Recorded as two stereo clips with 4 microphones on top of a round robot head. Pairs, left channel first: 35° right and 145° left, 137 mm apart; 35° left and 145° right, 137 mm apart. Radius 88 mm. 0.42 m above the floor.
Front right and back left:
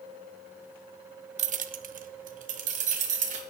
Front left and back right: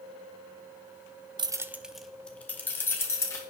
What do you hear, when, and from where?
1.4 s keys jangling: 165° left, 0.6 m; by 3.4 s 105° left, 2.5 m